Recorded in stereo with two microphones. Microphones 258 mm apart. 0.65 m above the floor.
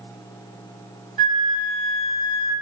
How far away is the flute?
About 1.4 m.